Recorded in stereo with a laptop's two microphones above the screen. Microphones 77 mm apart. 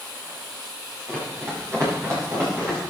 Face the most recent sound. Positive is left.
turn(degrees=-40)  # may be behind; listen again after turning